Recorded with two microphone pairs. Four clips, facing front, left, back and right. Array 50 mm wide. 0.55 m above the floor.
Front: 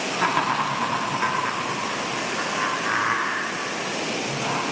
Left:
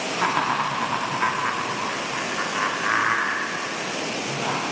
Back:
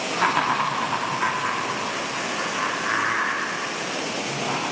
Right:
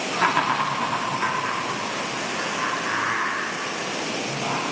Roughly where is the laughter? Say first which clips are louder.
Right 2 dB, back 1 dB; right.